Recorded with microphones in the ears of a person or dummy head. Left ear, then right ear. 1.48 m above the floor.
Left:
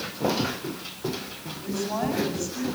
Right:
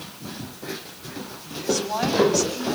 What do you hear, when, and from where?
1.6 s a woman speaking: 50° right (ahead or behind), 10 m